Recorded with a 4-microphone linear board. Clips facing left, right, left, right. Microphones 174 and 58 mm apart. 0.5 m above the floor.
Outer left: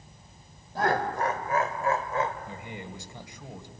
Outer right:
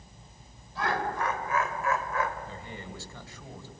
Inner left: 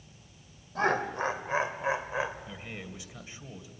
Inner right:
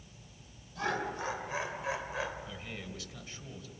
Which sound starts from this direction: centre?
A man speaking, at 2.5 s.